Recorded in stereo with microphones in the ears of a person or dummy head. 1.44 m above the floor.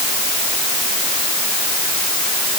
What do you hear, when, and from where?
Only background noise.